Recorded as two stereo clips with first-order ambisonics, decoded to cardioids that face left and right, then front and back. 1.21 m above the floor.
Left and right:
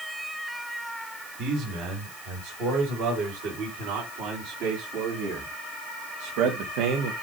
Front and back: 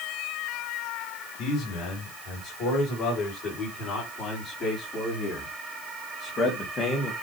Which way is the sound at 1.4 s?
55° right.